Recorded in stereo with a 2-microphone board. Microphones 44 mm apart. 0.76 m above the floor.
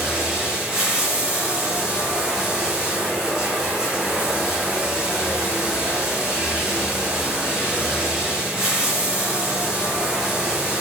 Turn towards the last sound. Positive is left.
turn(degrees=-15)  # may be behind; listen again after turning